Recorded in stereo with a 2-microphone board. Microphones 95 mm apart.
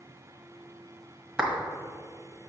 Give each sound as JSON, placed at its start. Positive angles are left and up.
{"t": 1.4, "sound": "a clap", "side_deg": -10, "distance_m": 1.5}